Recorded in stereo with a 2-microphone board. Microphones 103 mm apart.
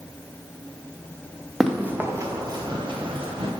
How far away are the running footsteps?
About 1.4 m.